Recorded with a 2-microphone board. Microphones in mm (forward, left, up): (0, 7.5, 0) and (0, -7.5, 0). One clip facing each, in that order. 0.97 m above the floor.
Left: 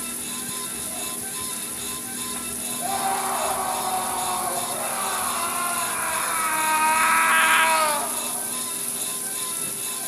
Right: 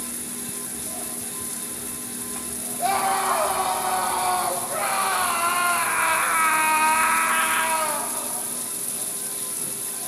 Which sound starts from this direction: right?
A scream, at 2.8 s.